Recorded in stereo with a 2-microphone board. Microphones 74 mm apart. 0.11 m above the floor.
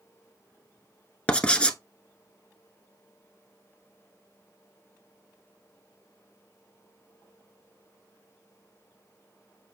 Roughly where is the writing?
Centre.